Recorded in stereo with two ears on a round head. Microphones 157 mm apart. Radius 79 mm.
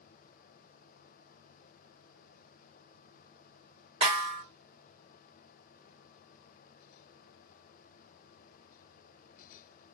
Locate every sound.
4.0 s a snare drum: 35° right (ahead or behind), 1.0 m